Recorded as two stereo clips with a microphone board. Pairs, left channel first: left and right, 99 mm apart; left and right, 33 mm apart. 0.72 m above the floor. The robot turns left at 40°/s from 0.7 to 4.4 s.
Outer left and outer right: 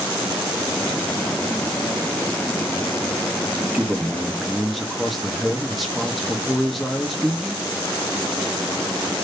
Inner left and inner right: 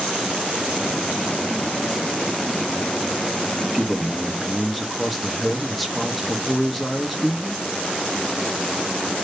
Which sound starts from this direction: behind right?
A man speaking, at 3.6 s.